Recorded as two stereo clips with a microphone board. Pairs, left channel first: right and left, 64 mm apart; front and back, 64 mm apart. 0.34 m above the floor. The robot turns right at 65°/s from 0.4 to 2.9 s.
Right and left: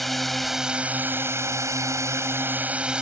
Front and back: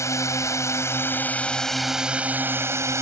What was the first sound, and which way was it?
A drone, straight ahead.